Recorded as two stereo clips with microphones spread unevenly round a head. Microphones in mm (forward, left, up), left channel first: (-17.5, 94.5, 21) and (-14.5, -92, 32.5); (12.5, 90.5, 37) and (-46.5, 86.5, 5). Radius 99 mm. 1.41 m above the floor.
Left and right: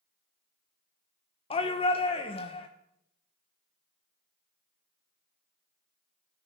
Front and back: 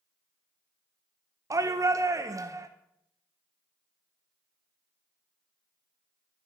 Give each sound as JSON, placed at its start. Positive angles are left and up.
{"t": 1.5, "sound": "a shout", "azimuth_deg": 150, "distance_m": 1.0}